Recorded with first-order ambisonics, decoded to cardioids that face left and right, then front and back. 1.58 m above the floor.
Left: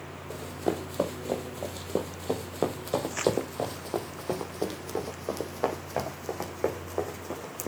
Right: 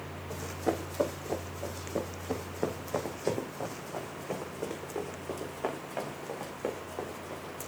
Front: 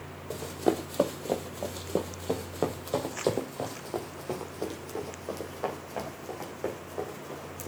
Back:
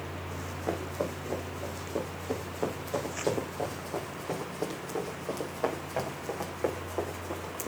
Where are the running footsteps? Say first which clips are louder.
Left 1 dB, front 7 dB; 15° left, 3 m; by 7.7 s 105° left, 6 m.